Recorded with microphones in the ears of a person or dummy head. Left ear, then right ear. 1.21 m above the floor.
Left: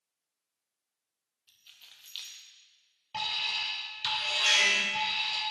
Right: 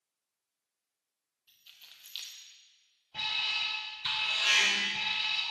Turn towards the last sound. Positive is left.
turn(degrees=50)  # may be behind; listen again after turning